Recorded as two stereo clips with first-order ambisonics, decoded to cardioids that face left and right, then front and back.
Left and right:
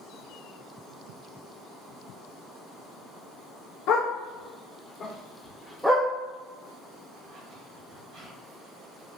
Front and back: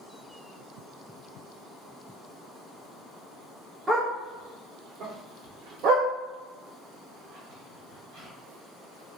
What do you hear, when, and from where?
3.9 s a dog barking: 100° left, 1.1 m; by 9.2 s 135° right, 2.5 m